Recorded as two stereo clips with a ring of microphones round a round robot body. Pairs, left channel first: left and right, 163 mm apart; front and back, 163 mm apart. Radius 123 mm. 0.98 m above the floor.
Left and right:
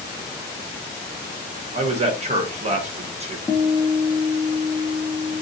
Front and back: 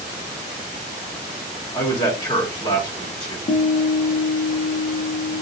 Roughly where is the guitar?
Ahead.